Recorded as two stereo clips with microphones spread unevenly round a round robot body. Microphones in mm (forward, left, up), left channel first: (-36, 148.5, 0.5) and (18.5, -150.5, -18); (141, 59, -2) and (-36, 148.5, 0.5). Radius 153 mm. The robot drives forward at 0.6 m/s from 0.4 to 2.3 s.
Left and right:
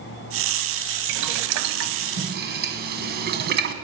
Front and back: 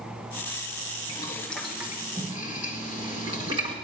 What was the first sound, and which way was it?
Boiling, 95° right.